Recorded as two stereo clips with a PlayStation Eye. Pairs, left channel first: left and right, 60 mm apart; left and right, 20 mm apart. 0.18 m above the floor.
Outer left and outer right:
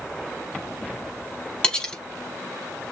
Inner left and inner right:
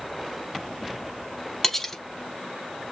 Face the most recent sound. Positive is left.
turn(degrees=15)  # may be behind; listen again after turning